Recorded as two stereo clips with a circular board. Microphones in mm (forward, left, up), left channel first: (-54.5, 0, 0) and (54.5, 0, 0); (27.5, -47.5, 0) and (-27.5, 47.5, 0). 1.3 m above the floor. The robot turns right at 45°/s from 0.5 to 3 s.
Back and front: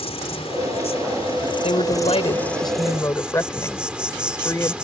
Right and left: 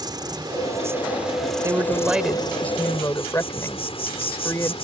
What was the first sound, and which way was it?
An insect, 165° left.